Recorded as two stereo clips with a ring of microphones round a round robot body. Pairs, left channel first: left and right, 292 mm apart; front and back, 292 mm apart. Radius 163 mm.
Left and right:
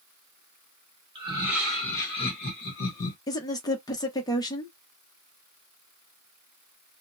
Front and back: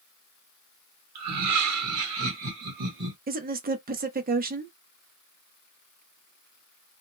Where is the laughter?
165° right, 1.2 m; by 3.2 s 115° left, 1.1 m.